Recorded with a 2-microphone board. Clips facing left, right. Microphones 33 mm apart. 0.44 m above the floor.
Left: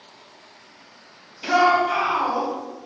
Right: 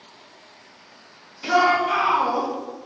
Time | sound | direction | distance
1.4 | a shout | 15° left (ahead or behind) | 1.1 m